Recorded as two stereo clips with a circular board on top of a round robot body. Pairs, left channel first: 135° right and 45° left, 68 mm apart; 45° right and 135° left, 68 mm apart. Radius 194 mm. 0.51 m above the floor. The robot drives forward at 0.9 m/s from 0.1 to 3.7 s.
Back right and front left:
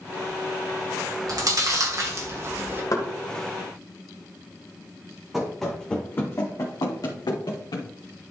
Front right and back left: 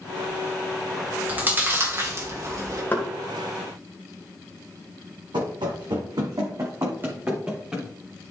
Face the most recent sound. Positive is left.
turn(degrees=-145)